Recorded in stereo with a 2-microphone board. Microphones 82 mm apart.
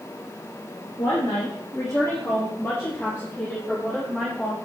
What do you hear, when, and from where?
1.0 s a woman speaking: 55° left (ahead or behind), 3 m; by 4.6 s 10° left (ahead or behind), 6 m